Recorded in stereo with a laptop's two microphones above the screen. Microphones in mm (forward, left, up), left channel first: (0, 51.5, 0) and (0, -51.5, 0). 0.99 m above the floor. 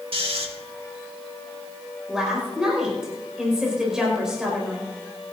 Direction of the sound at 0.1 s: 65° right (ahead or behind).